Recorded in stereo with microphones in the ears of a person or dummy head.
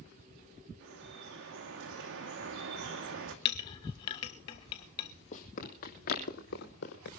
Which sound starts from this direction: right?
Dripping, at 0.8 s.